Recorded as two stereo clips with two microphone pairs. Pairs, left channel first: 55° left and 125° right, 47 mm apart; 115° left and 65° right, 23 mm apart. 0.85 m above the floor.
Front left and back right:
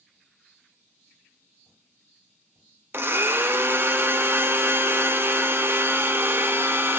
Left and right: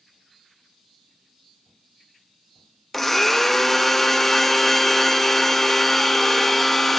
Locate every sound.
2.9 s a blender: 160° right, 0.5 m